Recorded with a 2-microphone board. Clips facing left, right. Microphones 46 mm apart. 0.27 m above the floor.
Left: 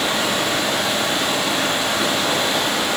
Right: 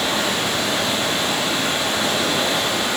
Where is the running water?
75° left (ahead or behind), 2 m.